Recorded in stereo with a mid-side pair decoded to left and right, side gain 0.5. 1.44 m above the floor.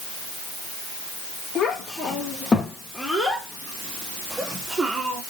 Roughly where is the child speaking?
Ahead left.